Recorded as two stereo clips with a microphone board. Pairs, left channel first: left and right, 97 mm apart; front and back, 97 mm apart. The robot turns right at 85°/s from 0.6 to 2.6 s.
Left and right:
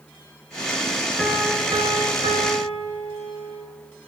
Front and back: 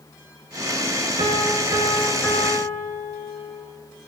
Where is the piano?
Straight behind, 2.5 m; by 3.7 s 55° right, 2.5 m.